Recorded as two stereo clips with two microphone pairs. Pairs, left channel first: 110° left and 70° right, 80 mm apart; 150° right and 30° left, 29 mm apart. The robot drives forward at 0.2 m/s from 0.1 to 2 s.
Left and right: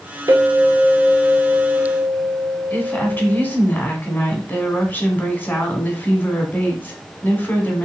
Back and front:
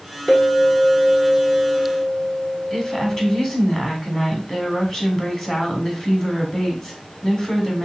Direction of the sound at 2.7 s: 155° left.